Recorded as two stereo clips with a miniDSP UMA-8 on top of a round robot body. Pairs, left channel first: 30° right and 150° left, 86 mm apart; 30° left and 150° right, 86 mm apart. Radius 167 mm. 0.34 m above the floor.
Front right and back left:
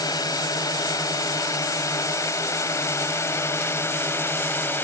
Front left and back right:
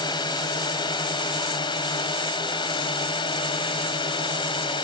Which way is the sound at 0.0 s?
10° left.